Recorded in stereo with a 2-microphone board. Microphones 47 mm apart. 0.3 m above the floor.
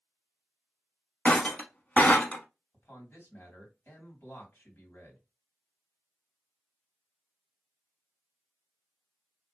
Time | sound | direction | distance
1.2 | breaking glass | 40° left (ahead or behind) | 0.9 m
2.7 | a man speaking | 50° left (ahead or behind) | 2.5 m